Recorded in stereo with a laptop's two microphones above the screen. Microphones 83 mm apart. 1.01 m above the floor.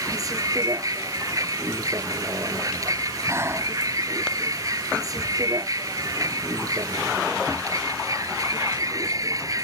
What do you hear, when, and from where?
0.0 s a vehicle: 45° right (ahead or behind)
3.3 s breathing: 30° right (ahead or behind)